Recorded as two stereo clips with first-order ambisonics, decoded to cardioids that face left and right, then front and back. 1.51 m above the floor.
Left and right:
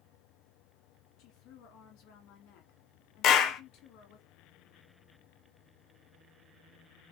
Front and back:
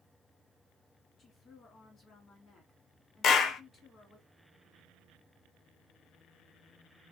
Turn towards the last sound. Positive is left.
turn(degrees=50)